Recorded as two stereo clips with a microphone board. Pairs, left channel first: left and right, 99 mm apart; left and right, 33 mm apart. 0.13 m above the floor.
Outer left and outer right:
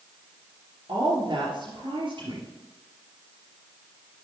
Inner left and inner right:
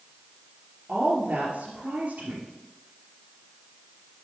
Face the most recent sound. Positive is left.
turn(degrees=-55)  # may be behind; listen again after turning